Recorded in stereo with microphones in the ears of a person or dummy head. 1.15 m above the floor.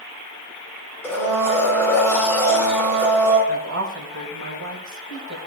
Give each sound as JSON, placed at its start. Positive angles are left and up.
{"t": 1.0, "sound": "a blender", "side_deg": 10, "distance_m": 4.5}
{"t": 3.5, "sound": "a woman speaking", "side_deg": -75, "distance_m": 5.0}